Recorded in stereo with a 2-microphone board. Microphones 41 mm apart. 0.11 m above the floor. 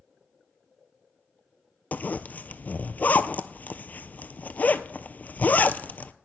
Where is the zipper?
45° left (ahead or behind), 0.5 m.